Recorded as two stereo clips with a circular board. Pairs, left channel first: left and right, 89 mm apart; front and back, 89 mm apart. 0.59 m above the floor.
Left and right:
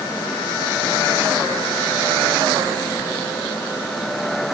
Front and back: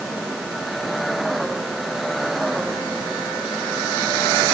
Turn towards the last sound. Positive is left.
No sound to turn to.